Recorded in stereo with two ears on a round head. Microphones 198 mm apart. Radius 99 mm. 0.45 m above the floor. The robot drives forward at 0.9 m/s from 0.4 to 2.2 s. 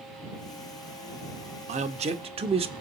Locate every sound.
1.7 s a man speaking: 30° right (ahead or behind), 0.8 m; by 2.7 s 25° right (ahead or behind), 0.9 m